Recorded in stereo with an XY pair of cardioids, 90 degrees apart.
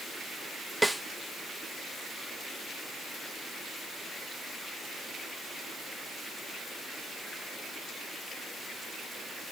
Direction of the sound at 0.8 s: 10° right.